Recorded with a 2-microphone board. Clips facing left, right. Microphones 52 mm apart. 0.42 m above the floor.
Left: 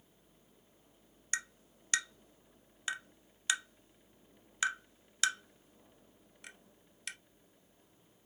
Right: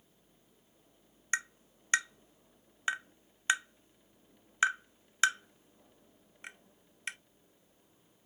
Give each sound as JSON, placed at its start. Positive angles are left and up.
{"t": 1.3, "sound": "tapping", "side_deg": -30, "distance_m": 0.5}